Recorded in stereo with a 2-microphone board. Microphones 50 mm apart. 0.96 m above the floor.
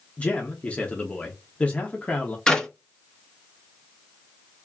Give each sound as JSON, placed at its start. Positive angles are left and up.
{"t": 0.2, "sound": "a man speaking", "side_deg": 25, "distance_m": 0.9}
{"t": 2.5, "sound": "a clap", "side_deg": 15, "distance_m": 1.1}